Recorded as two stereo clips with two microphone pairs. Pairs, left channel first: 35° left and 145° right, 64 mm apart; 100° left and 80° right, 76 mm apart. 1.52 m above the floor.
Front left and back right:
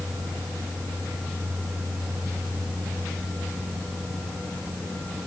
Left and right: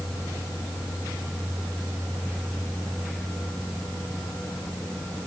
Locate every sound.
Only background noise.